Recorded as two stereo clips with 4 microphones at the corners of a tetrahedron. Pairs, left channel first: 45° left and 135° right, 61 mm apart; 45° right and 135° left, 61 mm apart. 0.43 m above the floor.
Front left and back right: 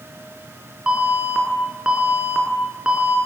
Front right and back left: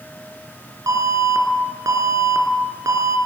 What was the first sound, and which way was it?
An alarm, 150° left.